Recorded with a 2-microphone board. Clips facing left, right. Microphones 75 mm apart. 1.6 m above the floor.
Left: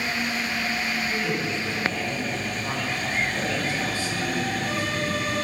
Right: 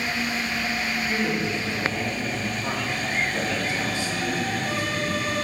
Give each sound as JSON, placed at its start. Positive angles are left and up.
{"t": 1.1, "sound": "a man speaking", "side_deg": -20, "distance_m": 4.5}